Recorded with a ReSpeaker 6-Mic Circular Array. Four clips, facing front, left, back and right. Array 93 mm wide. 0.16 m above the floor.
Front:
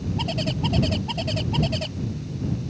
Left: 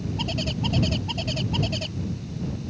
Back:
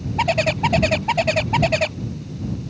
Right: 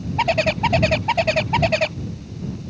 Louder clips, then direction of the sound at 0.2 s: Right 14 dB, back 11 dB; 125° right.